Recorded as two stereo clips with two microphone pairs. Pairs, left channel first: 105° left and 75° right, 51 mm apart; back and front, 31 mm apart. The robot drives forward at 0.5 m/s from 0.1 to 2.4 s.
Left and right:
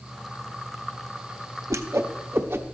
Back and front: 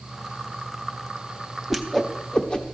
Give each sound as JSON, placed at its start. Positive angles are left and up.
{"t": 1.7, "sound": "a whoosh", "azimuth_deg": -85, "distance_m": 0.7}